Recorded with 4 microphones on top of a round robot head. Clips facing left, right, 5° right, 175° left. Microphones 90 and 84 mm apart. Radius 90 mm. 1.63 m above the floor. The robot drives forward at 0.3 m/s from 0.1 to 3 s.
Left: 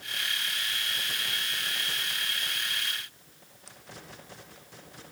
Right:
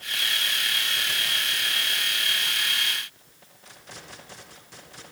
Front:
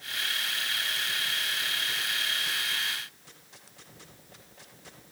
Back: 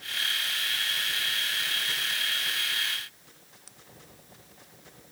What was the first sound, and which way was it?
Only background noise.